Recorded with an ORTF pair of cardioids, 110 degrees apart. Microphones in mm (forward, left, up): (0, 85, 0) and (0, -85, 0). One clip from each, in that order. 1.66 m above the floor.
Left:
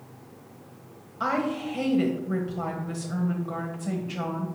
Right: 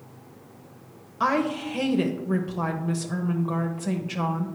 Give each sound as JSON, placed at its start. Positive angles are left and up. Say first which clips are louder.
{"t": 1.2, "sound": "a woman speaking", "louder": "right 3 dB", "azimuth_deg": -30, "distance_m": 1.0}